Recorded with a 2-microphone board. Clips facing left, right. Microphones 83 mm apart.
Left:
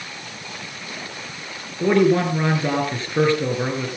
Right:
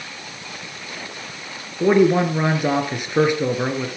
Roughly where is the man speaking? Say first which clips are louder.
Right 1 dB; centre.